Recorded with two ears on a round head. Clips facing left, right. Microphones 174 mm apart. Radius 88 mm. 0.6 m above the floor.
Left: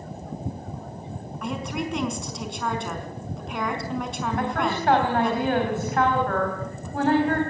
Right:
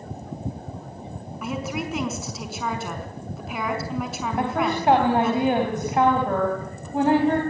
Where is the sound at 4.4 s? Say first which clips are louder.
Right 3 dB; 15° right (ahead or behind), 4.5 m.